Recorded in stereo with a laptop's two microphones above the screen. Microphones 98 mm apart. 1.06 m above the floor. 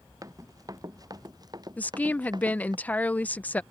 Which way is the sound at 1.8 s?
15° left (ahead or behind).